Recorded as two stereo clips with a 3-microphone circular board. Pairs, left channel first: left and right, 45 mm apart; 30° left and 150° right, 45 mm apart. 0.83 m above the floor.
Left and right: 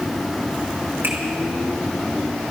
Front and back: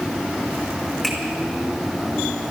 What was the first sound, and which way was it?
A finger snap, 55° right.